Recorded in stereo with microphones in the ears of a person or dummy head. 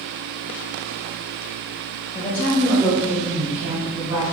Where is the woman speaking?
30° left (ahead or behind), 0.7 m; by 4.2 s 20° right (ahead or behind), 1.3 m.